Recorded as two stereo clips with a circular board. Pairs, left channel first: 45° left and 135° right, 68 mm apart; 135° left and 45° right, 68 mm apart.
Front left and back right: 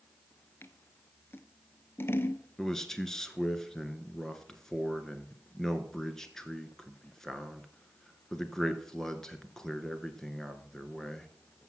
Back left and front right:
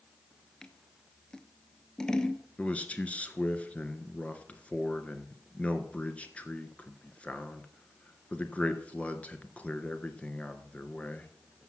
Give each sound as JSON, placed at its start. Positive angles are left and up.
{"t": 0.6, "sound": "scissors", "azimuth_deg": 65, "distance_m": 0.7}
{"t": 2.6, "sound": "a man speaking", "azimuth_deg": 115, "distance_m": 1.2}